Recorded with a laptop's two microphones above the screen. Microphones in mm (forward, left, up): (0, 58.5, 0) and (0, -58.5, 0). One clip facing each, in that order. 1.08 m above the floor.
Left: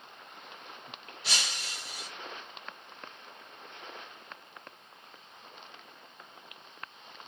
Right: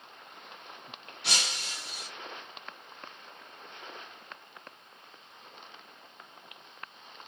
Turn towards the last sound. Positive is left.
turn(degrees=-70)  # may be behind; listen again after turning